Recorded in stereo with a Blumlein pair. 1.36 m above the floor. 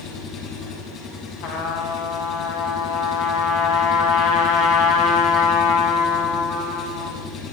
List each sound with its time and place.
0.0 s an engine running: 30° left, 7 m
1.4 s a trumpet: 50° left, 7 m